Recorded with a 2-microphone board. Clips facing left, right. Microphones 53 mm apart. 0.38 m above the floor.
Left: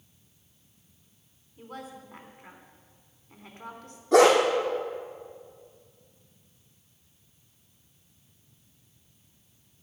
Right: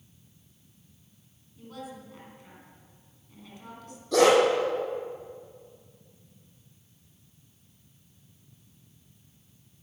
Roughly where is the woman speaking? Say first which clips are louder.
Even; left.